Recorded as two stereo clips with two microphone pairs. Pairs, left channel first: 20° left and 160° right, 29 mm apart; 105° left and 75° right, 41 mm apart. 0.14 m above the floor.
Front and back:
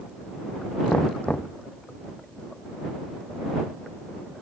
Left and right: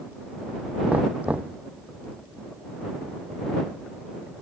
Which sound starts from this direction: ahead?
Knocking, at 0.9 s.